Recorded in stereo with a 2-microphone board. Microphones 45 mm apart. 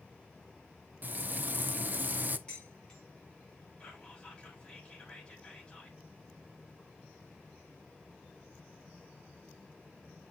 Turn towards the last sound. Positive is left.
turn(degrees=20)  # may be behind; listen again after turning